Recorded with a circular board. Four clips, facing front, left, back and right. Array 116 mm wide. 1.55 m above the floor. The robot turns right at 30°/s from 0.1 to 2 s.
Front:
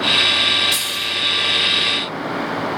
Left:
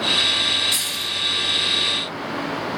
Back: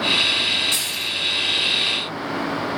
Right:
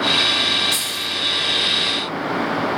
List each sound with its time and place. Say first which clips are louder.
0.7 s keys jangling: right 3 dB, front 4 dB; straight behind, 0.7 m; by 1.1 s 170° right, 0.7 m